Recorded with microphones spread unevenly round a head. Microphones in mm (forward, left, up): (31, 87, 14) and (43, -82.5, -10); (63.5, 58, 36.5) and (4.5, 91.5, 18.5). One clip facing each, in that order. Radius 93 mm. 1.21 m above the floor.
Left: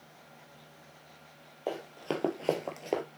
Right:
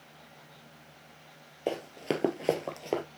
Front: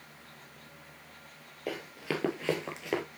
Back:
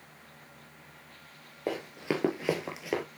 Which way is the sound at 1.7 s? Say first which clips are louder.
Right 3 dB, back 3 dB; 135° right.